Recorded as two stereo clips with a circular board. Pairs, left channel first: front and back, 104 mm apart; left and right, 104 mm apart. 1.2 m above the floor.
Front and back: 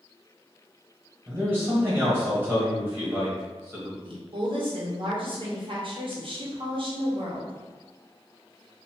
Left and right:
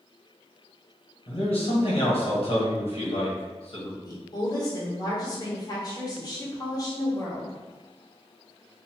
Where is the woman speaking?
140° left, 1.1 m.